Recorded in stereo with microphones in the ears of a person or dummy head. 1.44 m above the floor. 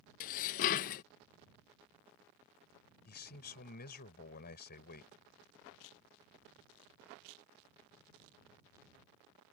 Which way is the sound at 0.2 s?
45° left (ahead or behind).